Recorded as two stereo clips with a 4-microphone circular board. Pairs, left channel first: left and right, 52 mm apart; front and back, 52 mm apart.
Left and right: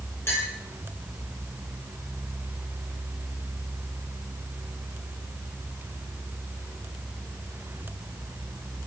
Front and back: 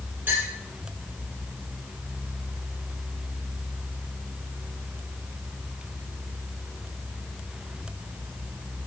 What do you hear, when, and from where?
0.3 s a clink: 130° left, 9.5 m